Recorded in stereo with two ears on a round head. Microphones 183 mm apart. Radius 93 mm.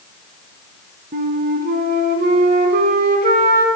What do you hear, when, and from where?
1.1 s a flute: 45° right (ahead or behind), 0.8 m